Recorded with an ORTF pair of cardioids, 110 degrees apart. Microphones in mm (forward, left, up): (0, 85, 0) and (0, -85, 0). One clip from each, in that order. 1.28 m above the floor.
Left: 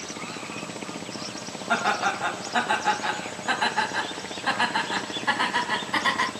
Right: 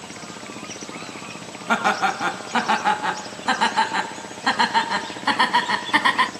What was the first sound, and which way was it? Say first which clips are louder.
Laughter: right 4 dB; 40° right.